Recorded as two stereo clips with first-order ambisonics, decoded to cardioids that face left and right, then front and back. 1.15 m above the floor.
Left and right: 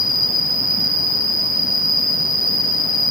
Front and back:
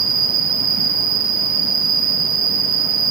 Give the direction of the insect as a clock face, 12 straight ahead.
7 o'clock.